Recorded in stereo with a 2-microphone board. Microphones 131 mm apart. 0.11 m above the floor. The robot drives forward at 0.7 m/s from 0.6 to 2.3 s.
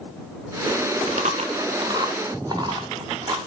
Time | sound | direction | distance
1.1 | chewing | 65° right (ahead or behind) | 0.6 m